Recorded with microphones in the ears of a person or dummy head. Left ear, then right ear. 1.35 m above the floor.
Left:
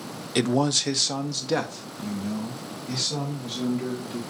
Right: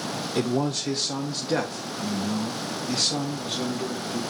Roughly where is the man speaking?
Left.